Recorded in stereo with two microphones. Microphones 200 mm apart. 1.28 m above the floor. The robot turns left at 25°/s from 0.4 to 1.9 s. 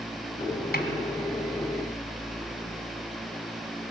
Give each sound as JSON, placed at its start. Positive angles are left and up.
{"t": 0.7, "sound": "a snare drum", "side_deg": 50, "distance_m": 2.5}